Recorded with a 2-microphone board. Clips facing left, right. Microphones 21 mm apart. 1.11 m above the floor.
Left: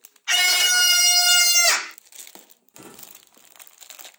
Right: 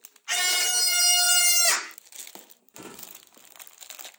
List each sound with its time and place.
0.3 s a scream: 60° left (ahead or behind), 1.7 m; by 2.0 s 25° left (ahead or behind), 1.1 m
2.7 s a drawer: 20° right (ahead or behind), 0.9 m